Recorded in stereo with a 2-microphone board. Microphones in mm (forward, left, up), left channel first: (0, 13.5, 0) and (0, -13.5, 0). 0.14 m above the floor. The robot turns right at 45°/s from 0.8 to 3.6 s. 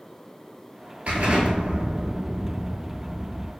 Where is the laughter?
I don't hear laughter.